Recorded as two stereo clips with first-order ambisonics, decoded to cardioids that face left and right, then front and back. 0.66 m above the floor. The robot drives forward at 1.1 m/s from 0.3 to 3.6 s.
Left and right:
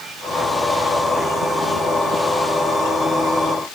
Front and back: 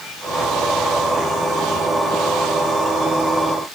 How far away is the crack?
I don't hear a crack.